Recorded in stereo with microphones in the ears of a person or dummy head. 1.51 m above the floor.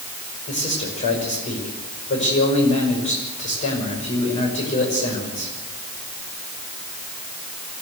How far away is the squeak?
I don't hear a squeak.